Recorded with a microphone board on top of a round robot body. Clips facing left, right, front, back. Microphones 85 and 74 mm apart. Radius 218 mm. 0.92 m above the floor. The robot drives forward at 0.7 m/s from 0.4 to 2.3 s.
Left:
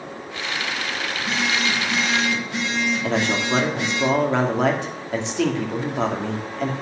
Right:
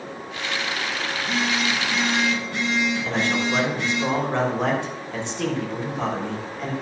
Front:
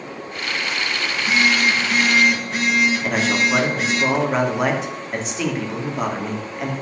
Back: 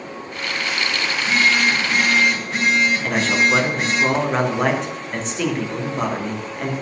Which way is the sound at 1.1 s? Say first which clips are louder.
Even, even; 80° left.